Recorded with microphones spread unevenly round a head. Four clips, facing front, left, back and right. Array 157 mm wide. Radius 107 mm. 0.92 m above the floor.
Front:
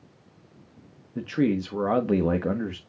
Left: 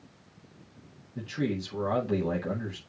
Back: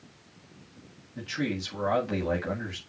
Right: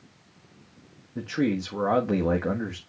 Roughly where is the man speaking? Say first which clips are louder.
Right 5 dB, front 8 dB; ahead right.